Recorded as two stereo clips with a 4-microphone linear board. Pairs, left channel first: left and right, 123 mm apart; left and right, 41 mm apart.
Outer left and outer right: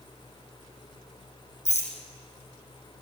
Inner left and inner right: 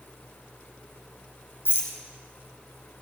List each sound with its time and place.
1.6 s a rattle: 65° left (ahead or behind), 5 m